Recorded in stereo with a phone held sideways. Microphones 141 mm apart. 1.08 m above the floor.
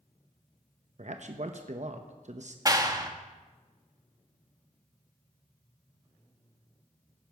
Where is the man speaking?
55° right (ahead or behind), 0.8 m.